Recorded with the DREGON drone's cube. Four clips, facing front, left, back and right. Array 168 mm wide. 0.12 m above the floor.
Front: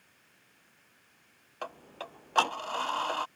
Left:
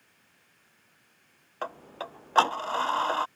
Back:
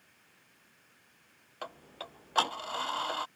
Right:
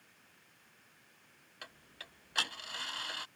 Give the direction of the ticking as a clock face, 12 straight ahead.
9 o'clock.